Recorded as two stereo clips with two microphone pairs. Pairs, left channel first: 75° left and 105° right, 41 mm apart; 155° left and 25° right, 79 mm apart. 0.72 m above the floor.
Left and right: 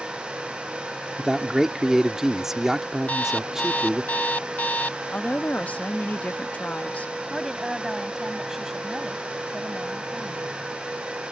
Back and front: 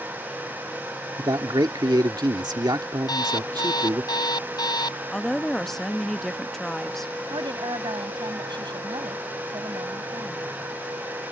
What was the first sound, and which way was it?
A man speaking, 30° right.